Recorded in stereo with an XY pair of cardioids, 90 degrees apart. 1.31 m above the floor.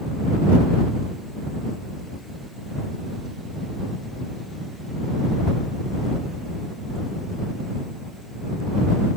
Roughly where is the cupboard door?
I don't hear a cupboard door.